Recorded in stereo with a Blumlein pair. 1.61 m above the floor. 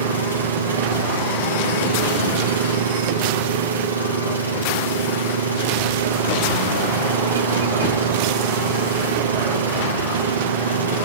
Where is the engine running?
70° right, 2.5 m.